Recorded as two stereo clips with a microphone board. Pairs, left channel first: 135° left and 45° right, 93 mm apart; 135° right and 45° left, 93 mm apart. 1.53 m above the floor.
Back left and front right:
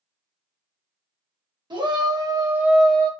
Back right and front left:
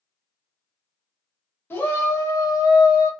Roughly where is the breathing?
I don't hear breathing.